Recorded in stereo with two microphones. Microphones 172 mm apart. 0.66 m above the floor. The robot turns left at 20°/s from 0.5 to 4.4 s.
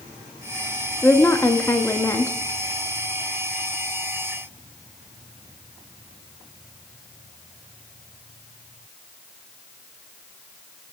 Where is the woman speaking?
10° left (ahead or behind), 0.5 m; by 2.4 s 15° left (ahead or behind), 0.5 m.